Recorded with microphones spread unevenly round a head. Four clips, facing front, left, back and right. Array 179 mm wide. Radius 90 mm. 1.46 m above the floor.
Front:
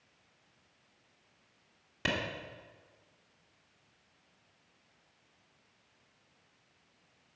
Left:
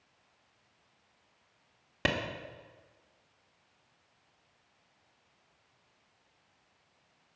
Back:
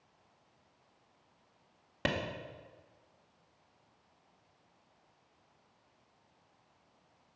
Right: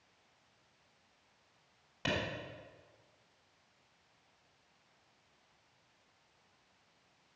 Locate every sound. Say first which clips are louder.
2.0 s a clap: left 5 dB, back 1 dB; 100° left, 1.7 m